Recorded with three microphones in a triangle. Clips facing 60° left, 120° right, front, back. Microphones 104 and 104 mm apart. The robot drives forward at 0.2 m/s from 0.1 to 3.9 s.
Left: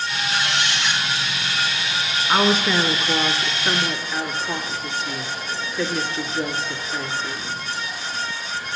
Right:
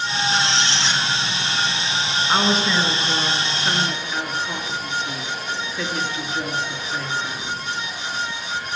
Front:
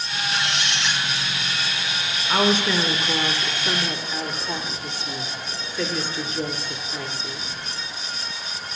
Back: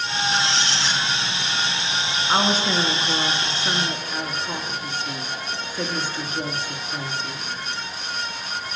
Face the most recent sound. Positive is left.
turn(degrees=155)